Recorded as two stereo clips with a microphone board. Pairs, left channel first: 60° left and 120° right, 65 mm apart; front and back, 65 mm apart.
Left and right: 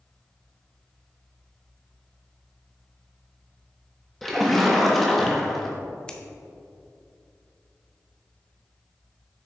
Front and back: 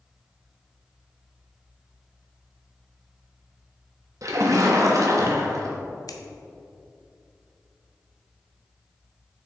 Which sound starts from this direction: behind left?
A splash, at 4.2 s.